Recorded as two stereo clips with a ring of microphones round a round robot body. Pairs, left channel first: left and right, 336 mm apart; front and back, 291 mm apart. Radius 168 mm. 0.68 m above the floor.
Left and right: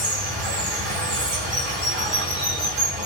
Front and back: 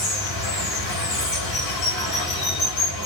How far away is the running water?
About 1.4 m.